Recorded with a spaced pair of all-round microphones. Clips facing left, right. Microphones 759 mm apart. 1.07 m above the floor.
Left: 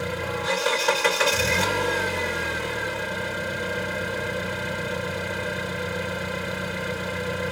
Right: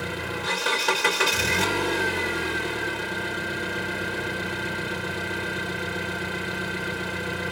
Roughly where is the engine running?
Centre.